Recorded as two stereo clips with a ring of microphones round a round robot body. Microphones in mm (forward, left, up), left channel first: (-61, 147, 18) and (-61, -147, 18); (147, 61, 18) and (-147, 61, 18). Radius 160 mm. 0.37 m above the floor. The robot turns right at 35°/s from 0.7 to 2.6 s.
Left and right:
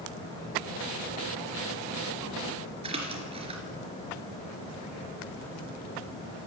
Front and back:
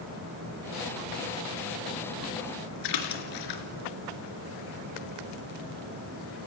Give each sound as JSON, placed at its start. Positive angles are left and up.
{"t": 2.8, "sound": "a splash", "azimuth_deg": -15, "distance_m": 3.0}